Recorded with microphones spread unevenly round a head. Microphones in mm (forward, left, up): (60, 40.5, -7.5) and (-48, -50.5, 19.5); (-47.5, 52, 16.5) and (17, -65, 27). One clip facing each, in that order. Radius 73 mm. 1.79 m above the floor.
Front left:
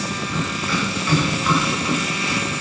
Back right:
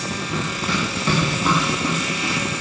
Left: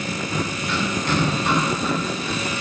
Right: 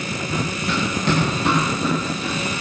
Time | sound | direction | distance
0.3 | running footsteps | 80° right | 7 m